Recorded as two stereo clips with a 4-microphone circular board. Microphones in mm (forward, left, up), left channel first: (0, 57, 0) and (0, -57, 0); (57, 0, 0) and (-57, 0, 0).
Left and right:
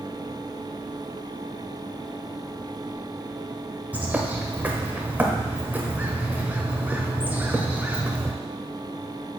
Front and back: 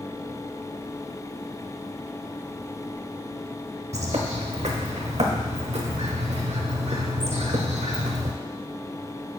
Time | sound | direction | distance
3.9 | a bird | 165° right | 0.9 m